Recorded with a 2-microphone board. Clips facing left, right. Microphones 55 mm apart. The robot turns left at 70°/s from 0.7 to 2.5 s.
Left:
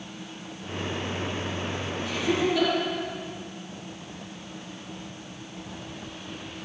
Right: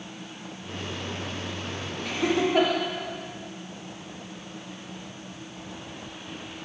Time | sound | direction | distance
2.0 | laughter | 75° right (ahead or behind) | 9.5 m